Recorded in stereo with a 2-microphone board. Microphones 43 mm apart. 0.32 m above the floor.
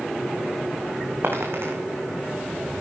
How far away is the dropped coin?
About 3.5 m.